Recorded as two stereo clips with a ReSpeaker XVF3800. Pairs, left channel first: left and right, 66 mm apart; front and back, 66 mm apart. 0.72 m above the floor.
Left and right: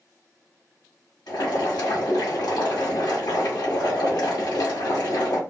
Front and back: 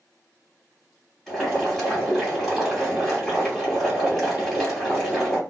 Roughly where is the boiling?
Left.